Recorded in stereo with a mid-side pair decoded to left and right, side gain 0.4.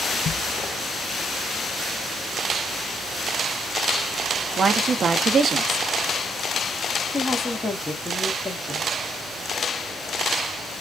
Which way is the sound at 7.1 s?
25° left.